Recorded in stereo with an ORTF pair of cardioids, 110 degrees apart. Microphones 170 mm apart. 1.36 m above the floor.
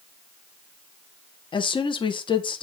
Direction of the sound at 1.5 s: 30° left.